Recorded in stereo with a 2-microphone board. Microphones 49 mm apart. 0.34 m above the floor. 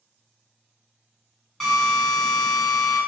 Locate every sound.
1.6 s a drill: 5° left (ahead or behind), 1.8 m